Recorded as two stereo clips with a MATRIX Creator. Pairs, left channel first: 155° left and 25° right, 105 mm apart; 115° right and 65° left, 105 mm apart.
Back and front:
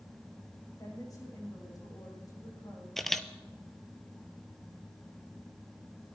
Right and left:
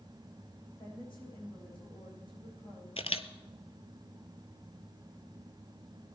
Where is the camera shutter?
115° right, 0.6 m.